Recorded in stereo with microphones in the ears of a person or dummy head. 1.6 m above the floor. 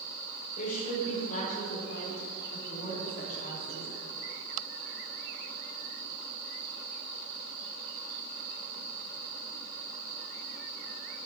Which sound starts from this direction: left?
A woman speaking, at 0.6 s.